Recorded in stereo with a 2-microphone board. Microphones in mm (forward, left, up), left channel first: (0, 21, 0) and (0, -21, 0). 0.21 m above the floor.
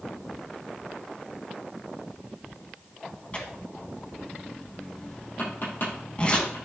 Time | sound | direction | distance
3.3 | tearing paper | 30° left (ahead or behind) | 1.5 m
5.4 | tapping | 55° left (ahead or behind) | 4.5 m